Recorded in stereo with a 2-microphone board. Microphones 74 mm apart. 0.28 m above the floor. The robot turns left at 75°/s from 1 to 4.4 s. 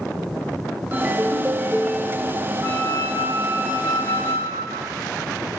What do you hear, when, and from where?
0.9 s a ringtone: 25° right (ahead or behind), 1.0 m; by 2.5 s 15° left (ahead or behind), 1.0 m
2.6 s a flute: 100° right, 8.5 m; by 4.9 s 125° left, 8.5 m